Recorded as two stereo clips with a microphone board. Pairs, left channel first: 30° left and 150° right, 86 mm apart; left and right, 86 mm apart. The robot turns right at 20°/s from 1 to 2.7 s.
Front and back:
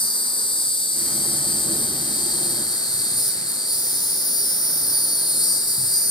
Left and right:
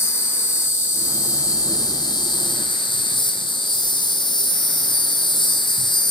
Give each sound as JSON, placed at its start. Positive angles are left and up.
{"t": 0.0, "sound": "an insect", "azimuth_deg": 35, "distance_m": 1.0}